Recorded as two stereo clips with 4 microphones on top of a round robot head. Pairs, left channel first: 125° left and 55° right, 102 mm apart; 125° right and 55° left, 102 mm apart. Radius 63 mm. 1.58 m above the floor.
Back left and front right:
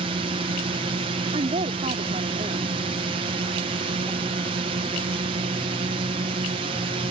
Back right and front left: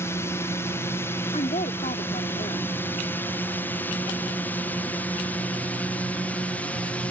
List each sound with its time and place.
0.0 s a drone: 65° right; by 7.1 s 50° right
1.3 s a woman speaking: 90° right